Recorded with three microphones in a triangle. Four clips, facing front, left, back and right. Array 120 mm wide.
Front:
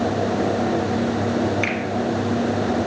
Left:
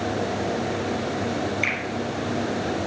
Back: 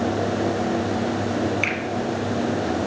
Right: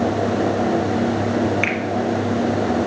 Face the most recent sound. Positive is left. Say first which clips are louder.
# right 6 dB, front 2 dB
turn(degrees=-70)